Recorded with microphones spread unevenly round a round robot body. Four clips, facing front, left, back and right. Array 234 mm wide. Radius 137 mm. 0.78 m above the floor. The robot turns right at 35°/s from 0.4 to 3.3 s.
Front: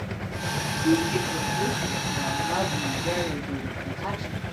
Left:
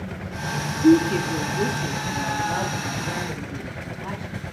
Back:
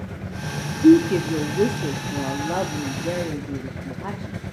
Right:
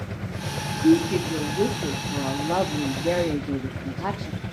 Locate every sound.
0.8 s a woman speaking: 170° left, 1.5 m; by 4.3 s 105° right, 1.5 m